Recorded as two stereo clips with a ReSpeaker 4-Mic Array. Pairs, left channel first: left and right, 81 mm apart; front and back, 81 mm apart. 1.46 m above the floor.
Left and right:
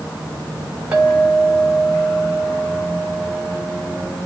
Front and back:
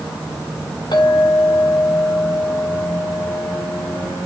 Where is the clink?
15° right, 6.5 m.